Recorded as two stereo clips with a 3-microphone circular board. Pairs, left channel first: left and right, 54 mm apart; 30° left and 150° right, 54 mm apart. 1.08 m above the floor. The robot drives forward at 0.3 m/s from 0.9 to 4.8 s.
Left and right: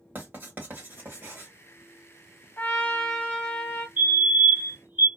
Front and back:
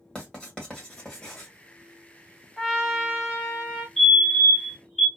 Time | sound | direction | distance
0.1 | writing | 40° right | 1.6 m
2.6 | a trumpet | 130° left | 1.1 m
4.0 | a fire alarm | 55° right | 1.2 m